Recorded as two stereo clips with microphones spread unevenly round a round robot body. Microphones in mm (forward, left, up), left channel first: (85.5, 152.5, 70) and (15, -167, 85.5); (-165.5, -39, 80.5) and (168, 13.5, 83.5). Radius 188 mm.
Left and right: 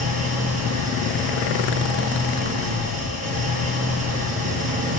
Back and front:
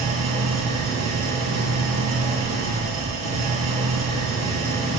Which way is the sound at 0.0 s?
35° right.